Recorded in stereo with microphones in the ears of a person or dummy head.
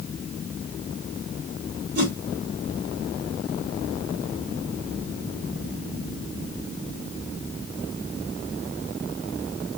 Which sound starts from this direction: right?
A whoosh, at 1.9 s.